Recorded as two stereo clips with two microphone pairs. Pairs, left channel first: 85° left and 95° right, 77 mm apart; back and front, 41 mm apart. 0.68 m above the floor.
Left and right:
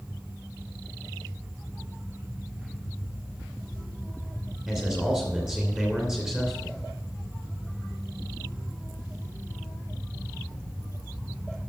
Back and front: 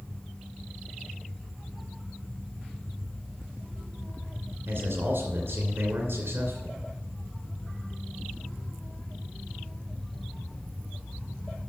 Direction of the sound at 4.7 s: 10° right.